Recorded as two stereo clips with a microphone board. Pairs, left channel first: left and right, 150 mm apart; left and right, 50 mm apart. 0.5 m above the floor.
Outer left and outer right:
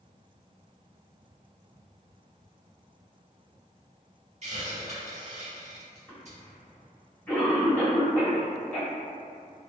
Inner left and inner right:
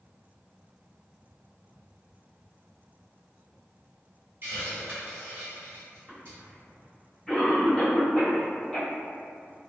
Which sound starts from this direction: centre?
A cough, at 6.1 s.